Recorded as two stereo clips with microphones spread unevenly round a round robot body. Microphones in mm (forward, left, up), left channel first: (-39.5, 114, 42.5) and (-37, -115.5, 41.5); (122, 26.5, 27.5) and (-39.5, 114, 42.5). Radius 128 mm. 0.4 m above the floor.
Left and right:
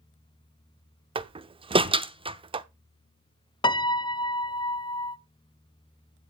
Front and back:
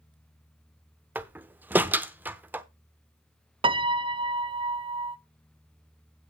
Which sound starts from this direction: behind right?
A door slam, at 1.1 s.